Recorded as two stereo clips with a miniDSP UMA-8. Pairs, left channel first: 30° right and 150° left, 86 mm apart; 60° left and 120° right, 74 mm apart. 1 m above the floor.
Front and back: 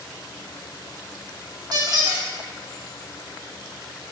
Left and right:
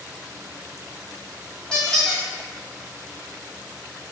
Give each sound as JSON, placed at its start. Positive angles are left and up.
{"t": 1.7, "sound": "a squeak", "azimuth_deg": 140, "distance_m": 1.2}